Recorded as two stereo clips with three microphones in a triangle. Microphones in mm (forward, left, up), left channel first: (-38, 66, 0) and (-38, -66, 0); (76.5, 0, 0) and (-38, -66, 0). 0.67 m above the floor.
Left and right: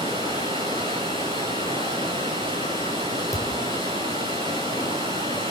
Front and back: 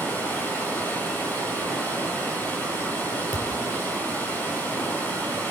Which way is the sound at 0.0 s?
45° right.